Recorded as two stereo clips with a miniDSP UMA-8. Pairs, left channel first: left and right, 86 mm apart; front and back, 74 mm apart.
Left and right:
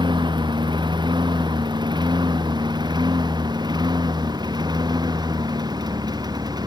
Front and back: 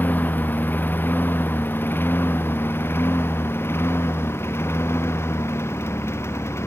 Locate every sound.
0.0 s a lawn mower: 65° right; by 6.7 s 55° right